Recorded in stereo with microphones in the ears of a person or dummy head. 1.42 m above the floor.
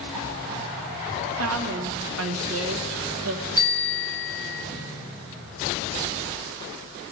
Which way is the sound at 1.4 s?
80° right.